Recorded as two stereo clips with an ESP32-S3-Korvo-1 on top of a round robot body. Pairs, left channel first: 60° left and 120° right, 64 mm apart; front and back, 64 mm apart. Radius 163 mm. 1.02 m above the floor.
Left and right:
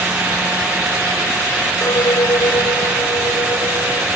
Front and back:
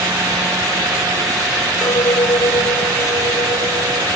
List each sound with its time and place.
1.8 s a clink: 25° left